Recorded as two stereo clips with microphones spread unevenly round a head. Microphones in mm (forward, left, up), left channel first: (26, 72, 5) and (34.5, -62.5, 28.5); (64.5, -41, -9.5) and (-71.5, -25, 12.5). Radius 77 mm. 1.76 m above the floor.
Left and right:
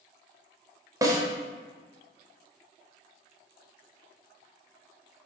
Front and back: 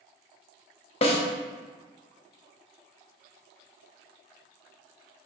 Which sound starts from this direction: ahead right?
A snare drum, at 1.0 s.